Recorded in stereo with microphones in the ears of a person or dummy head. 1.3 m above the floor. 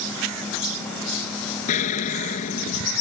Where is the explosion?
45° left (ahead or behind).